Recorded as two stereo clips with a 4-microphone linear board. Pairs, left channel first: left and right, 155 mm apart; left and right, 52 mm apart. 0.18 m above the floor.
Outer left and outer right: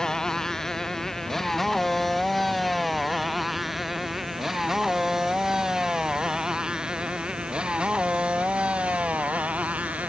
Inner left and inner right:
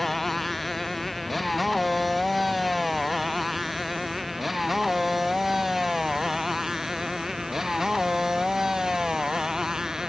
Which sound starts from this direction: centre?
A motorcycle, at 0.0 s.